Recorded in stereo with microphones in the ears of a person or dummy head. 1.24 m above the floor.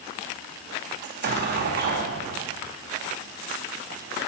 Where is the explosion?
55° right (ahead or behind), 2.5 m.